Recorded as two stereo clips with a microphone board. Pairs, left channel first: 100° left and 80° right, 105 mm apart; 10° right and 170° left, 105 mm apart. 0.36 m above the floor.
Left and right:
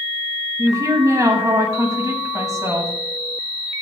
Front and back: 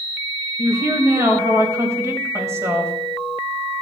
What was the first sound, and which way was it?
A woman speaking, 130° right.